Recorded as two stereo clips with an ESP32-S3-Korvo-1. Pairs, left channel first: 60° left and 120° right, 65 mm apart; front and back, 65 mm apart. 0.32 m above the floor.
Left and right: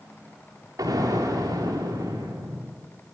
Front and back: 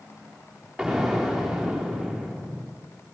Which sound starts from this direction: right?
An explosion, at 0.8 s.